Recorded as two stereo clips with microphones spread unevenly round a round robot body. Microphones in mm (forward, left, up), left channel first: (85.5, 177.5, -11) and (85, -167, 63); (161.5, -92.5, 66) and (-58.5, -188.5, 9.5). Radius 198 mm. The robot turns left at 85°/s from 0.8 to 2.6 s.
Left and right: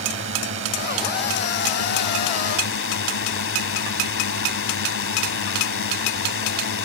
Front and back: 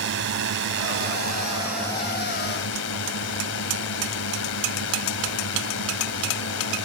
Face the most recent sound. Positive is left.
turn(degrees=55)